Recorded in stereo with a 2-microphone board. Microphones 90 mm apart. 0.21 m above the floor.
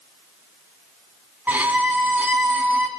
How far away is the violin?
About 1.9 m.